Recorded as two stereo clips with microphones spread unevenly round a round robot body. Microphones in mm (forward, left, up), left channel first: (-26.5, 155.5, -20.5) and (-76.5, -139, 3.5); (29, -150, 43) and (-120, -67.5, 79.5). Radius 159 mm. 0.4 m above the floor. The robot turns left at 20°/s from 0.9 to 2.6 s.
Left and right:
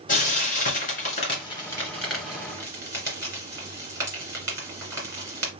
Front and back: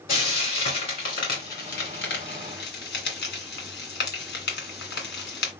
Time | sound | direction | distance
0.1 | frying | 15° left | 1.9 m